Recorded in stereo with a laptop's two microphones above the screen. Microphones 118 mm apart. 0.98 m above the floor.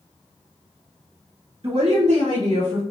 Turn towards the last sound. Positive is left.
turn(degrees=-55)  # may be behind; listen again after turning